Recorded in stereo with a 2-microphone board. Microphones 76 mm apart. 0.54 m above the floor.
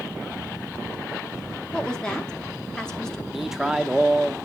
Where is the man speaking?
5° right (ahead or behind), 0.6 m.